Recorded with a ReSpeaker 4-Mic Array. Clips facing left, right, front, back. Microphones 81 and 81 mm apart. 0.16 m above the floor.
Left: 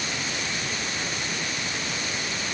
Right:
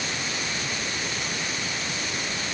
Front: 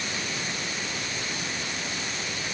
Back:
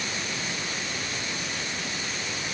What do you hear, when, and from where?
Only background noise.